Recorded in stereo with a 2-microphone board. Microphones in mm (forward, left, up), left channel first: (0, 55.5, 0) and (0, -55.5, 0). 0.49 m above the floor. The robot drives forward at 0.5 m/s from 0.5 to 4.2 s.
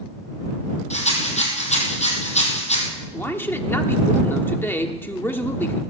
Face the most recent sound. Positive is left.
turn(degrees=20)  # may be behind; listen again after turning